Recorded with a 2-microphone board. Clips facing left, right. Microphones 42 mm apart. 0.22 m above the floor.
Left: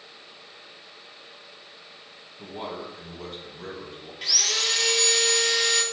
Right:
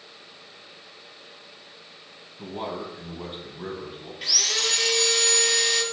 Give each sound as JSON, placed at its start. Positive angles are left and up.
{"t": 2.4, "sound": "a man speaking", "side_deg": -25, "distance_m": 1.1}
{"t": 4.2, "sound": "sawing", "side_deg": 0, "distance_m": 0.7}